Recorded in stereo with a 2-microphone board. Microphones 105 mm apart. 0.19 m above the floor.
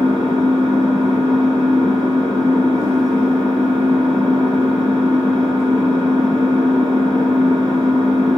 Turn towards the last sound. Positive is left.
turn(degrees=-35)  # may be behind; listen again after turning